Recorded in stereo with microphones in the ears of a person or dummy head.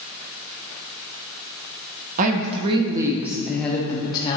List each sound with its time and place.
2.2 s a woman speaking: 45° right (ahead or behind), 1.0 m; by 4.4 s 25° left (ahead or behind), 1.0 m